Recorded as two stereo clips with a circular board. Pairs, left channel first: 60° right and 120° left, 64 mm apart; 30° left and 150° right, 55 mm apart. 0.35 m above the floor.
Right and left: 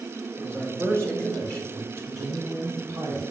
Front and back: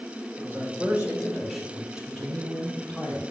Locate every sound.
0.4 s a man speaking: 170° left, 2 m; by 3.2 s 110° left, 4 m